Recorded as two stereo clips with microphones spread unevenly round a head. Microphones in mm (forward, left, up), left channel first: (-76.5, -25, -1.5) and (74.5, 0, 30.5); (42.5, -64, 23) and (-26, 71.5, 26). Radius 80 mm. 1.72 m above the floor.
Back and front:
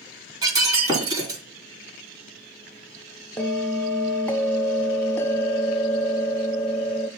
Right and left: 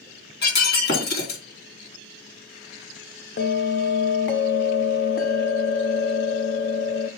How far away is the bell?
About 0.9 m.